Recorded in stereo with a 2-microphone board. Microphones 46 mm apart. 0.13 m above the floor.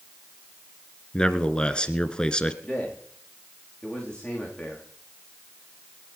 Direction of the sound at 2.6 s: 20° left (ahead or behind).